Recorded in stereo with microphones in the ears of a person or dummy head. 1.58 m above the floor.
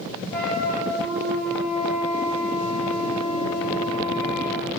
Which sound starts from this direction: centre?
A flute, at 0.3 s.